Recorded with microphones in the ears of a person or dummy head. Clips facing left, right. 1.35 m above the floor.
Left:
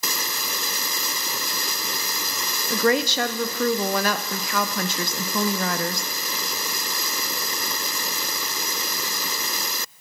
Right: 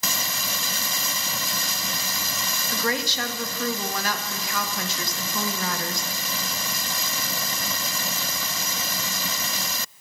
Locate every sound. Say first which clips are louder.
2.7 s a woman speaking: left 7 dB; 55° left (ahead or behind), 0.6 m